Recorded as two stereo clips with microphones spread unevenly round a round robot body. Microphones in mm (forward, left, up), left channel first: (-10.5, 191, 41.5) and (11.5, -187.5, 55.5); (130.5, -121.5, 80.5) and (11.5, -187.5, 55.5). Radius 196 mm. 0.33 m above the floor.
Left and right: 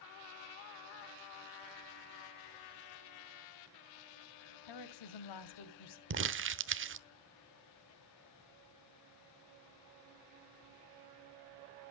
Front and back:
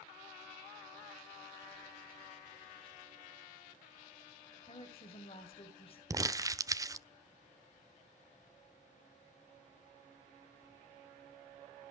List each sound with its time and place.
4.7 s a woman speaking: 90° left, 2.5 m
6.1 s crumpling: 125° right, 1.2 m